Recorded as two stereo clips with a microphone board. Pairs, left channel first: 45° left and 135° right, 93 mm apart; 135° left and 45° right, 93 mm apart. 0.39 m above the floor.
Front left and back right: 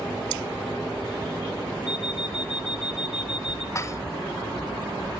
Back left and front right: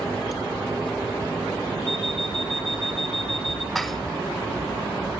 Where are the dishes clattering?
50° left, 0.7 m.